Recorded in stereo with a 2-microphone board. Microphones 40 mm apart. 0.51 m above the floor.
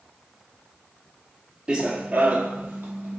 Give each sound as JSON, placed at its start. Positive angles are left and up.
{"t": 1.7, "sound": "running footsteps", "side_deg": -20, "distance_m": 0.5}